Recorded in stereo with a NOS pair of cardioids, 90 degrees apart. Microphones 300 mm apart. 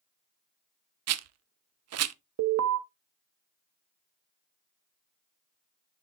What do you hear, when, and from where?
1.1 s a rattle: 60° right, 0.6 m
2.4 s an alarm: 55° right, 1.0 m